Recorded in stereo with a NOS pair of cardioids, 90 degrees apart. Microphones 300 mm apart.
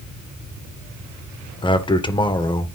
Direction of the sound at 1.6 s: 15° left.